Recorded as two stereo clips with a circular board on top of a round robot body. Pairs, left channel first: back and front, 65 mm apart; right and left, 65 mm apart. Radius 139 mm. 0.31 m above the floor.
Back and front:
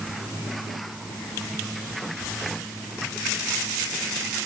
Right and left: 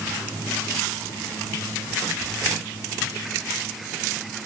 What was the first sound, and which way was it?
Only background noise.